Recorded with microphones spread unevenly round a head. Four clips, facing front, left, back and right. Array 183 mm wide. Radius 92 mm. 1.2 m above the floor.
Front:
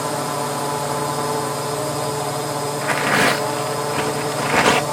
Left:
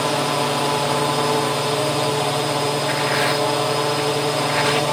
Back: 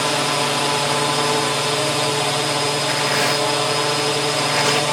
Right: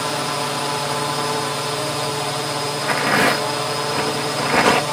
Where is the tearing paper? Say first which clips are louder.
Right 2 dB, front 2 dB; 55° right.